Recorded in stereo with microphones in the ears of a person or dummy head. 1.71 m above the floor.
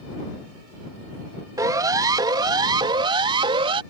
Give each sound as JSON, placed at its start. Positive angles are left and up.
{"t": 1.6, "sound": "a siren", "side_deg": -25}